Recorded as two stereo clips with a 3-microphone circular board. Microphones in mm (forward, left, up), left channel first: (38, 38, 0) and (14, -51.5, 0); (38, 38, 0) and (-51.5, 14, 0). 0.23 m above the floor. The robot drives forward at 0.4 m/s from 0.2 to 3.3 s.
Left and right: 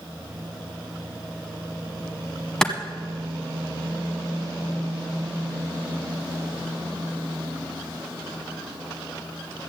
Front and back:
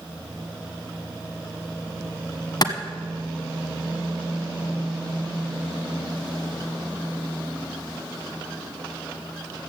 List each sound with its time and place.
2.6 s a clap: 5° right, 1.2 m